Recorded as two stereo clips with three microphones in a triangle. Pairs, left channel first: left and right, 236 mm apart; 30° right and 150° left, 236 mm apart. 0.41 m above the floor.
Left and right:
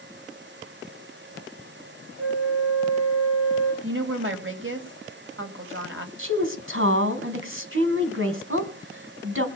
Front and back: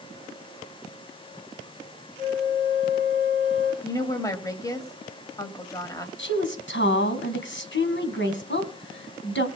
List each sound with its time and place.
2.2 s a flute: 95° right, 5 m
3.8 s a woman speaking: 105° right, 2.5 m
6.2 s a woman speaking: 65° right, 3 m